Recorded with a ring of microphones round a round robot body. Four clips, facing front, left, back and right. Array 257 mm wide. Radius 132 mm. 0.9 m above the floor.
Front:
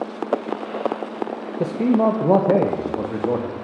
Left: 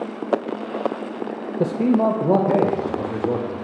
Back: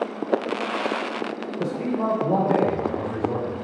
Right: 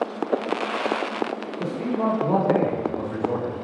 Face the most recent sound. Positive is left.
turn(degrees=0)